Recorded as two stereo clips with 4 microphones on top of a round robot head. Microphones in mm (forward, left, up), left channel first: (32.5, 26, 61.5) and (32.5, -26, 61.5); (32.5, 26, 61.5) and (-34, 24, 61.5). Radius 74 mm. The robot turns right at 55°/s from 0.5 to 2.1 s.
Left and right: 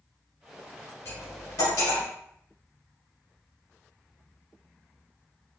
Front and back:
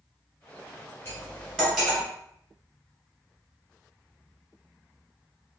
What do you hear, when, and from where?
1.1 s cutlery clinking: 60° left, 1.6 m; by 2.0 s 115° left, 1.6 m